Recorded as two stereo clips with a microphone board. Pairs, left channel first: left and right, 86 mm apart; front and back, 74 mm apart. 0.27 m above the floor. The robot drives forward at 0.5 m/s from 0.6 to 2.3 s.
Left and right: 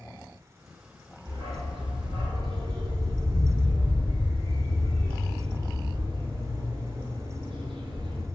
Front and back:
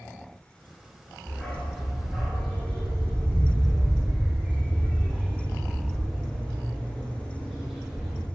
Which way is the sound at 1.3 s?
75° right.